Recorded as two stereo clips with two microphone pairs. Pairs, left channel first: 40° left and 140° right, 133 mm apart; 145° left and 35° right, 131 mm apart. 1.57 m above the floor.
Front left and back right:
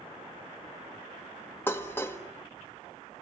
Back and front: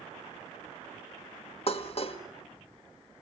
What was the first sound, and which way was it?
Dishes clattering, 115° left.